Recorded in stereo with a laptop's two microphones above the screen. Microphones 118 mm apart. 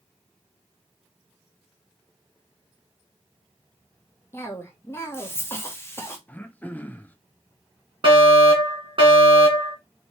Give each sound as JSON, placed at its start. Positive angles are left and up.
{"t": 4.3, "sound": "a cough", "side_deg": 20, "distance_m": 0.9}
{"t": 6.3, "sound": "throat clearing", "side_deg": 15, "distance_m": 0.6}
{"t": 8.0, "sound": "a fire alarm", "side_deg": -45, "distance_m": 2.0}